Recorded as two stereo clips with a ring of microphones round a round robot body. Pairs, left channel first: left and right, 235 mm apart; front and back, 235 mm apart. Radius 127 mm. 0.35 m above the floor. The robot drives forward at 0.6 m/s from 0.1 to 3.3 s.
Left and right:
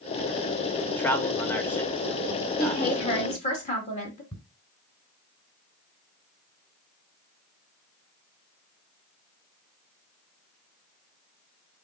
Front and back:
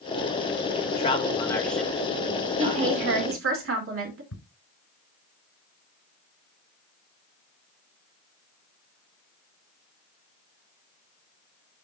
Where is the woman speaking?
150° left, 2 m; by 4.2 s 155° left, 2.5 m.